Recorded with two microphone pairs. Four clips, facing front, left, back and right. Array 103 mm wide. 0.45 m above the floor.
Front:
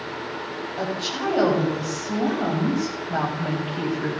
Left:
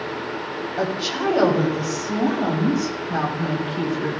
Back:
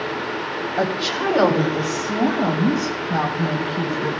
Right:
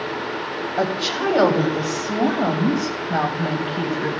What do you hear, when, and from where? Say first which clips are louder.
0.8 s a woman speaking: right 2 dB, back 5 dB; 110° right, 3 m; by 4.2 s 70° right, 3.5 m